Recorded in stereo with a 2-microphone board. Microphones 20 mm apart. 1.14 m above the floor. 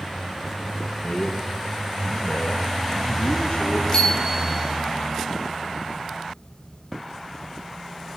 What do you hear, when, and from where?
1.0 s a man speaking: 45° left (ahead or behind), 1.0 m; by 3.8 s 75° left (ahead or behind), 2 m
3.9 s a bicycle bell: 40° left (ahead or behind), 7.5 m